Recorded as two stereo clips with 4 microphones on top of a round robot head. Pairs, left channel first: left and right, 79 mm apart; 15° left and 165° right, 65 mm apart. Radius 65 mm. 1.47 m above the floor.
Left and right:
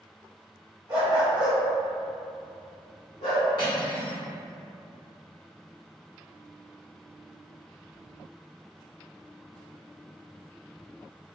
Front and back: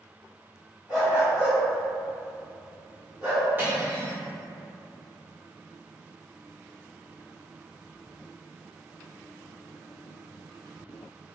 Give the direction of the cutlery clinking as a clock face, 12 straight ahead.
8 o'clock.